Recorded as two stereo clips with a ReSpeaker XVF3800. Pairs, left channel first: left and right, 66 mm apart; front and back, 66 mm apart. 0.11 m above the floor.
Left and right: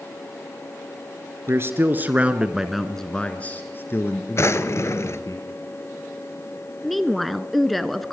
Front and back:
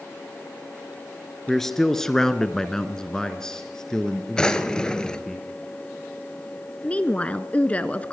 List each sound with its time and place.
1.5 s a man speaking: 85° right, 1.9 m; by 5.4 s 80° left, 2.5 m
4.4 s a drawer: 70° left, 0.9 m
6.8 s a woman speaking: 5° left, 1.1 m